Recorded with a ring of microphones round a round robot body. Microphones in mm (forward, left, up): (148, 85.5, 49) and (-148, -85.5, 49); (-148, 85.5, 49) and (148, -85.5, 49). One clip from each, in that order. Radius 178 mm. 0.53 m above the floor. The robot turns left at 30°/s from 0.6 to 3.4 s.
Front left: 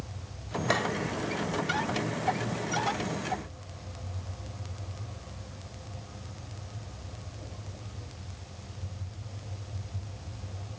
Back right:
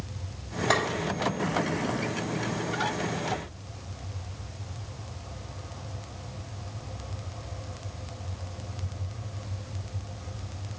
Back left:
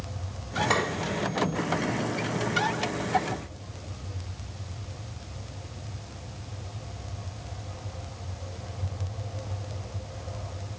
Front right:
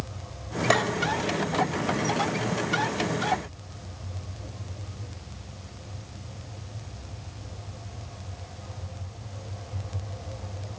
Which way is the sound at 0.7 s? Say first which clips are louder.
Back right 3 dB, front right 3 dB; 50° right.